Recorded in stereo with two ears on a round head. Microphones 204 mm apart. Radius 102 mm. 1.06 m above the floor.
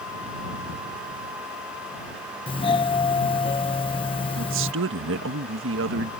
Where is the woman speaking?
60° right (ahead or behind).